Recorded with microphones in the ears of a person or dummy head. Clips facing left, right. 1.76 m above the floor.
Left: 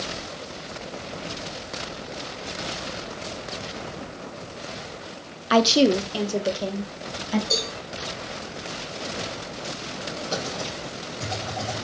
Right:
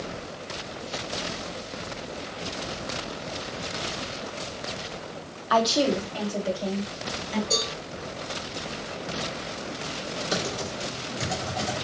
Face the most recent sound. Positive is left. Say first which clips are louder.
# right 1 dB
turn(degrees=-25)  # may be behind; listen again after turning